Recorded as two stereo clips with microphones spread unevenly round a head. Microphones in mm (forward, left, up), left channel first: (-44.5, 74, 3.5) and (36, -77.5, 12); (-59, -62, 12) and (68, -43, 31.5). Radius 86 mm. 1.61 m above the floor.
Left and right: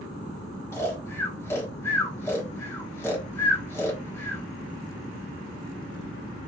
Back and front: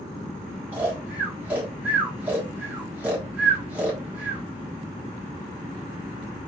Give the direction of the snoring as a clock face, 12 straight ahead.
10 o'clock.